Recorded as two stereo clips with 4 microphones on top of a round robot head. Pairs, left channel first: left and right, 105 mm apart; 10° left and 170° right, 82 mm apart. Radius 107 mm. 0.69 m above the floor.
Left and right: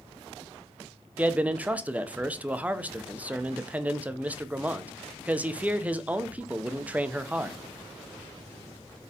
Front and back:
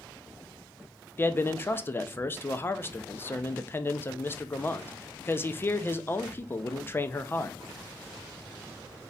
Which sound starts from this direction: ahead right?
A man speaking, at 1.2 s.